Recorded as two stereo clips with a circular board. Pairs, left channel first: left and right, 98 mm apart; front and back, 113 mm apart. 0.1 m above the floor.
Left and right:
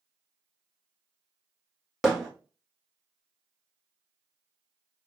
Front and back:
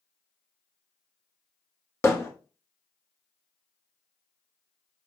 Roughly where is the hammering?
Ahead.